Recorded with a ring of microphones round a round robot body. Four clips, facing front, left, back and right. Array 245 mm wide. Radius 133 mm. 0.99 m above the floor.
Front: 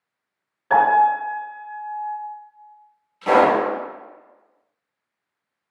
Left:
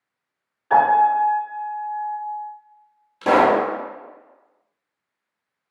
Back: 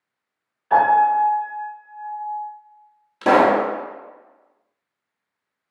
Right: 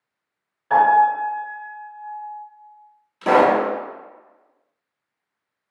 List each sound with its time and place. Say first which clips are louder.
0.7 s a piano: even, back 1 dB; straight ahead, 1.9 m
3.2 s a pop: even, back 1 dB; 175° left, 0.9 m